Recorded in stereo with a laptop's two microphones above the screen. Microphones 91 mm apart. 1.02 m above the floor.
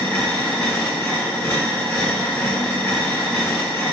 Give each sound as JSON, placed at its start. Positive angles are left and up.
{"t": 0.0, "sound": "a machine running", "side_deg": 20, "distance_m": 1.5}